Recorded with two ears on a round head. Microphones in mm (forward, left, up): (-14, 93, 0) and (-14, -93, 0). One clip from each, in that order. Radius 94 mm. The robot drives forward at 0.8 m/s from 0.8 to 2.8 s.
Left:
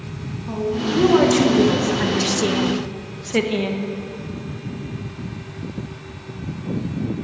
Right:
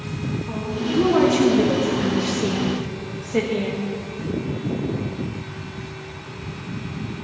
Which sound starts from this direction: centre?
A woman speaking, at 0.5 s.